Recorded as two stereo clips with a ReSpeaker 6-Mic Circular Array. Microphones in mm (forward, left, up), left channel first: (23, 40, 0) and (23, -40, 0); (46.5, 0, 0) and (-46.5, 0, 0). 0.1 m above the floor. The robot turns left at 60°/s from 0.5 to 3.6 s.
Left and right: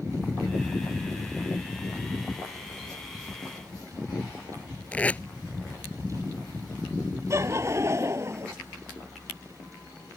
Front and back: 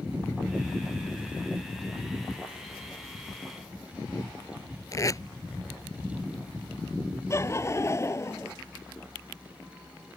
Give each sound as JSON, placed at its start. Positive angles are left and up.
{"t": 4.9, "sound": "tape being pulled", "azimuth_deg": 25}
{"t": 7.3, "sound": "laughter", "azimuth_deg": -50}